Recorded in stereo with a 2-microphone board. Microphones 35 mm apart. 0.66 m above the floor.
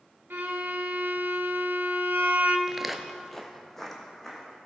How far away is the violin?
About 0.9 m.